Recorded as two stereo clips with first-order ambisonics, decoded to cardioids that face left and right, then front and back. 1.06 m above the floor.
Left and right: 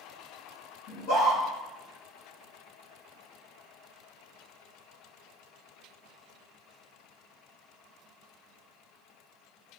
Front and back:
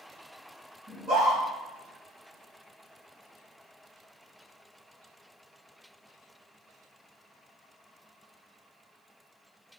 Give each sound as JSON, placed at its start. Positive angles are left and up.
{"t": 0.9, "sound": "a scream", "azimuth_deg": 105, "distance_m": 1.9}